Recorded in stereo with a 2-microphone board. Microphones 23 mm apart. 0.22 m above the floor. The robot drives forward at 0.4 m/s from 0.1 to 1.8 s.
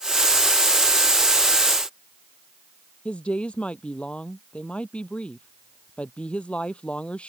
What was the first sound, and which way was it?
A woman speaking, 50° left (ahead or behind).